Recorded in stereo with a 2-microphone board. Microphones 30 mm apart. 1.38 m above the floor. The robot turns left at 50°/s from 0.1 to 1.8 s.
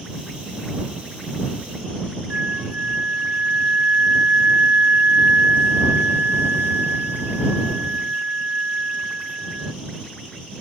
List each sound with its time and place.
2.3 s a flute: 60° right (ahead or behind)